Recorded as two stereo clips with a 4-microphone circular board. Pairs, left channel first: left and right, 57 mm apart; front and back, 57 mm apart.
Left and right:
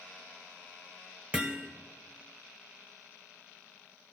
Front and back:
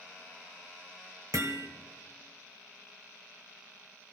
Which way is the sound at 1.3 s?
160° right.